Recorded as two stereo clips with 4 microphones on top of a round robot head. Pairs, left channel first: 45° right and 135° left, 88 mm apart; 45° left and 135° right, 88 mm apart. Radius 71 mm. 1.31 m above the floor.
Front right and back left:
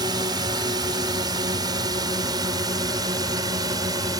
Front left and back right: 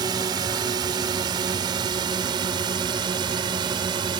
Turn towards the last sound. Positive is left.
turn(degrees=-175)